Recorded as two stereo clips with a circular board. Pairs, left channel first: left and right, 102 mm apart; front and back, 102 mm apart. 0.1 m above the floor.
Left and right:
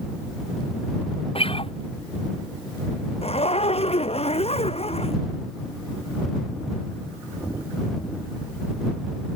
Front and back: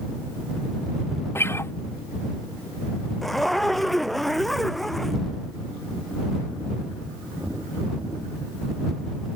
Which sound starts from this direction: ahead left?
A guitar, at 1.4 s.